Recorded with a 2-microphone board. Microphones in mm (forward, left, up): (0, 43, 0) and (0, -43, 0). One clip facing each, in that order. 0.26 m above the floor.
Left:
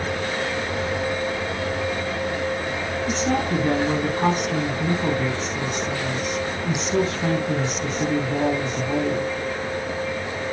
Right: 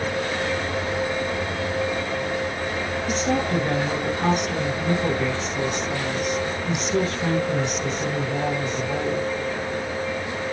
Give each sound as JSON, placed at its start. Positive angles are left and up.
{"t": 3.1, "sound": "a woman speaking", "side_deg": 30, "distance_m": 2.5}